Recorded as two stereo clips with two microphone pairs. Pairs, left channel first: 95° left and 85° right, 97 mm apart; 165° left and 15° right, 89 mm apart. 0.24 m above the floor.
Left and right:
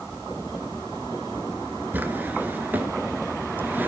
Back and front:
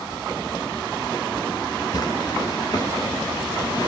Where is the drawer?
155° right, 1.9 m.